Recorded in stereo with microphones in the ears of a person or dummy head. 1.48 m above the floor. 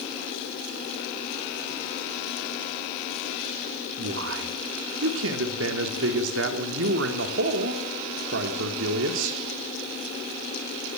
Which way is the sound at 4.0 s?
85° right.